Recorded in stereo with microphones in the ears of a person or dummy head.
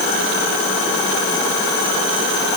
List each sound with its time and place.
Only background noise.